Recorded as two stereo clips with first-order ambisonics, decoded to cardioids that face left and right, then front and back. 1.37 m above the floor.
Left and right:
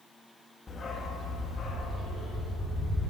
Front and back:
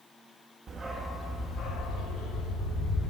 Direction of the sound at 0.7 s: 145° left.